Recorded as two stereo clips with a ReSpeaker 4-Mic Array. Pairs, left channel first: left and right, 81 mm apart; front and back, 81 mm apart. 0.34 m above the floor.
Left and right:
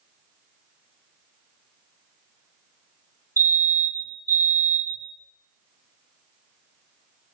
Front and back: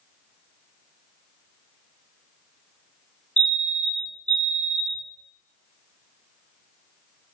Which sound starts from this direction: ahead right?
A fire alarm, at 3.4 s.